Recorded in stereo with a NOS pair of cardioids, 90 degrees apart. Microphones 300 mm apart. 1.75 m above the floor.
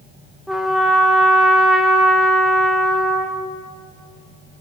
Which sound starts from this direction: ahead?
A trumpet, at 0.5 s.